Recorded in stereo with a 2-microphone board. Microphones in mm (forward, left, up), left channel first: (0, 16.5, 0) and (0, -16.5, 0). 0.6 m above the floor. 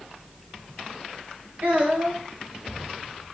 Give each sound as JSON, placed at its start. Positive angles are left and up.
{"t": 1.6, "sound": "a child speaking", "side_deg": -50, "distance_m": 2.5}